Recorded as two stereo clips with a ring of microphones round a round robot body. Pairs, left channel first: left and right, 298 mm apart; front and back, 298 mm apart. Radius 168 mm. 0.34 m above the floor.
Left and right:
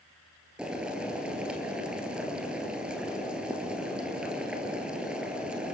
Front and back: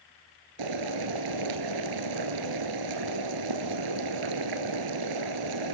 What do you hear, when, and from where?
0.6 s boiling: 175° right, 1.7 m